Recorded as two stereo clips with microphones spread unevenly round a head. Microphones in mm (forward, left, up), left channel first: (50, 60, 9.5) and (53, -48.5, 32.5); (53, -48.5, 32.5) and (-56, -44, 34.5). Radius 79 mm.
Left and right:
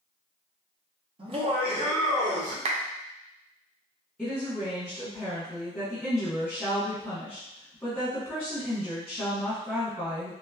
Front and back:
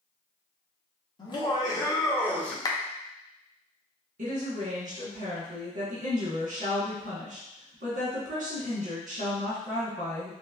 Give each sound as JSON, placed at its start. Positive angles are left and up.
{"t": 1.2, "sound": "laughter", "azimuth_deg": -50, "distance_m": 1.2}
{"t": 2.6, "sound": "a clap", "azimuth_deg": -65, "distance_m": 0.5}
{"t": 4.2, "sound": "a woman speaking", "azimuth_deg": 170, "distance_m": 1.3}